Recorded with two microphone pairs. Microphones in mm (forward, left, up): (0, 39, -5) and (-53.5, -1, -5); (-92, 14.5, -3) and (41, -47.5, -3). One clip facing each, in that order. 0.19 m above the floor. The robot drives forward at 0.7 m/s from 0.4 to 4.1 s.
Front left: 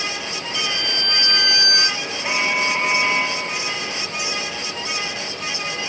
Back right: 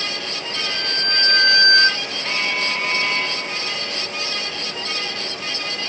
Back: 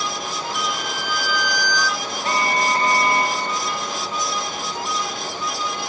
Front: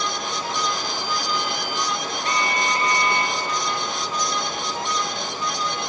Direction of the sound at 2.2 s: 105° left.